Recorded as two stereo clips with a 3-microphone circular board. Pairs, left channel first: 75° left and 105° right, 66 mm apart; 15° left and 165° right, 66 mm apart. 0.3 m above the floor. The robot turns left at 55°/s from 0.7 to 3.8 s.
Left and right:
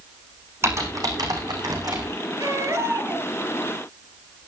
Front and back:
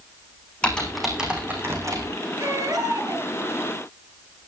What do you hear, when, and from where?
0.6 s typing on a keyboard: 60° right, 4 m; by 2.1 s 135° right, 4 m
2.4 s a baby crying: 130° right, 3 m; by 3.3 s straight behind, 3 m